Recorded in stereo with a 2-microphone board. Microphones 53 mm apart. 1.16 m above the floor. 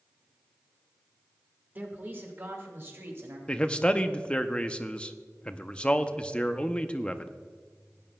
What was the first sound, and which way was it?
A man speaking, 35° right (ahead or behind).